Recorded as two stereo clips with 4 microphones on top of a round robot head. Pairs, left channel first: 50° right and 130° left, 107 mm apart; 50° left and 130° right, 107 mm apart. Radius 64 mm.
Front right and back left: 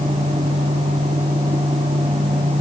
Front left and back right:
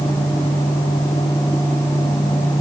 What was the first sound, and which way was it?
Only background noise.